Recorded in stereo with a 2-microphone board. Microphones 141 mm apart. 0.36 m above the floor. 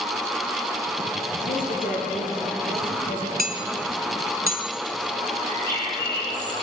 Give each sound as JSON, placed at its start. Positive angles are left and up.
{"t": 1.4, "sound": "a woman speaking", "side_deg": 70, "distance_m": 8.5}
{"t": 3.4, "sound": "hammering", "side_deg": -75, "distance_m": 1.8}
{"t": 5.5, "sound": "a bird", "side_deg": 25, "distance_m": 9.5}